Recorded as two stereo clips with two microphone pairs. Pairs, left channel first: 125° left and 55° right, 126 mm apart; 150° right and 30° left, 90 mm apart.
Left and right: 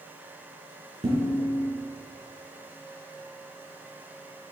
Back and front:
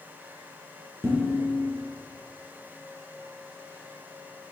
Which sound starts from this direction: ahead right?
Dishes clattering, at 1.0 s.